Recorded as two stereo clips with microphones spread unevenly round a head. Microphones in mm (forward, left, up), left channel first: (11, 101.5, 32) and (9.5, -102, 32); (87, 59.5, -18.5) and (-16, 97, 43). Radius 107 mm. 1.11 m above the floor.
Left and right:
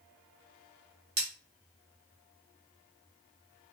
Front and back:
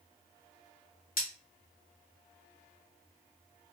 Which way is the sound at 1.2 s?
30° right.